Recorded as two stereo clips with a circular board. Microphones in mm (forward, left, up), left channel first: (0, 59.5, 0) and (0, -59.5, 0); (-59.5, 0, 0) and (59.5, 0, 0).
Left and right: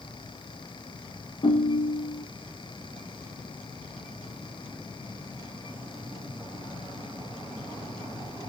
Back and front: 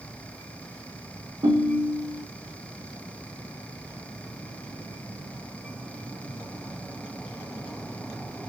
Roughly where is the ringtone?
Ahead left.